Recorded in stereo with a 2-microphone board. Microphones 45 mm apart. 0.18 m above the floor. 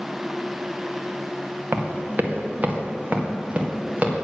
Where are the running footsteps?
50° right (ahead or behind), 1.3 m; by 4.1 s 25° right (ahead or behind), 2.5 m.